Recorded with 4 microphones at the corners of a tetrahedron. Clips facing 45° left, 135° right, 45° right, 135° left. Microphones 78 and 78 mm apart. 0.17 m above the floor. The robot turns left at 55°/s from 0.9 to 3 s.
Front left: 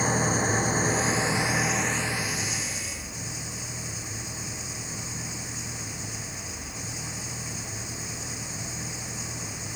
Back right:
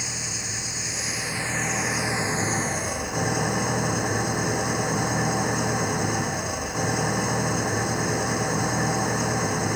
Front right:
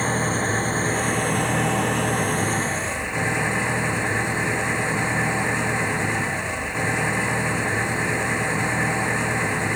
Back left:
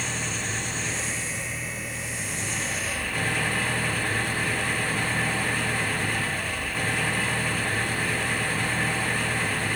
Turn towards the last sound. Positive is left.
turn(degrees=-115)